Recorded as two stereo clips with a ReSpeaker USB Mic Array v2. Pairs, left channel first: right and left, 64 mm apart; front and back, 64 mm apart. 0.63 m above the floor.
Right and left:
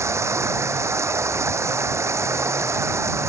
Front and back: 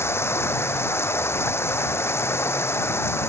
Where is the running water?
50° left.